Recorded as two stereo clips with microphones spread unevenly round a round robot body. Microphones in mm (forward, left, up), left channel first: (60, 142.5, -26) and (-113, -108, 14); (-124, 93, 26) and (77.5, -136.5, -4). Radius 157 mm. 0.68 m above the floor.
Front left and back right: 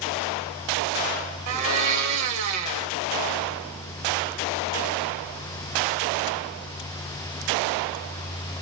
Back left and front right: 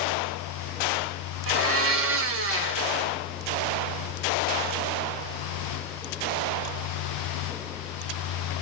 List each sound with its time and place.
1.5 s a blender: 95° right, 0.8 m